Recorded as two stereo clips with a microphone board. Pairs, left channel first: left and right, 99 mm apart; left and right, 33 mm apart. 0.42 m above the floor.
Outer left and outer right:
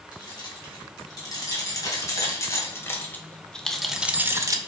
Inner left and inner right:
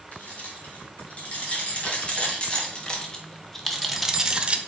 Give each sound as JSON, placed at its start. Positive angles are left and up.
{"t": 0.1, "sound": "keys jangling", "side_deg": 40, "distance_m": 3.5}